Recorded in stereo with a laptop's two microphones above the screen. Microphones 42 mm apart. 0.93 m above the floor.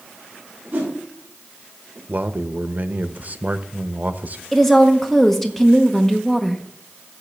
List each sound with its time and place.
0.7 s a whoosh: 30° right (ahead or behind), 4.5 m
2.1 s a man speaking: 40° right (ahead or behind), 0.7 m
4.5 s a woman speaking: 10° left (ahead or behind), 0.8 m